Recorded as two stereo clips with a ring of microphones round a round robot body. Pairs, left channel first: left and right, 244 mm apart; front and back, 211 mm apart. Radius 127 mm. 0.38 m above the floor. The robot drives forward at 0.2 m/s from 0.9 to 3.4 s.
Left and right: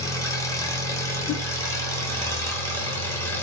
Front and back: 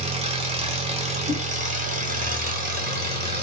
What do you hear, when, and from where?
0.0 s an engine running: 155° left, 1.1 m; by 3.4 s 165° left, 1.4 m
1.3 s a whoosh: 140° left, 1.7 m; by 1.4 s 145° left, 1.7 m